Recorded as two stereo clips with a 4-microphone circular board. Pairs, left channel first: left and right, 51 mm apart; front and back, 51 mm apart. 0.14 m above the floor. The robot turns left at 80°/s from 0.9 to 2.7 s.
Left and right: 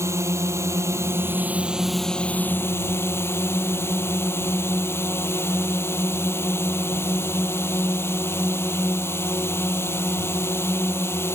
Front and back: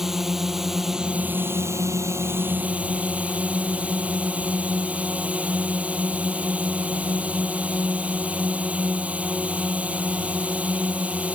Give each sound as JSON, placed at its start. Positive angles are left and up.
{"t": 0.0, "sound": "a drone", "azimuth_deg": -95}